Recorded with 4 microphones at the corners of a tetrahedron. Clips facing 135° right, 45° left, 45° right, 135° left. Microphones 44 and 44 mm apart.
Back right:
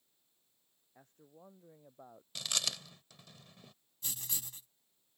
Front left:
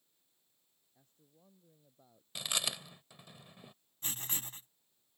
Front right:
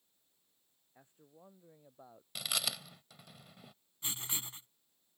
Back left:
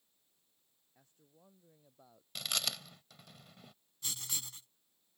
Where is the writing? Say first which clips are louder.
Front left 3 dB, front right 2 dB; 15° left.